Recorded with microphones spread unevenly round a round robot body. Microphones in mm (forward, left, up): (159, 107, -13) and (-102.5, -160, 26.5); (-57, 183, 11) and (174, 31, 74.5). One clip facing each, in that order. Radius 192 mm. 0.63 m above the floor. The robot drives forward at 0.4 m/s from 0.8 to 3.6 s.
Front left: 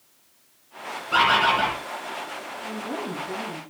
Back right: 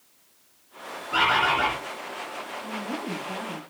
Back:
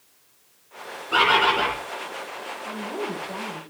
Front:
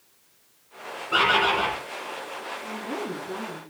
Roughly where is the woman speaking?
Ahead.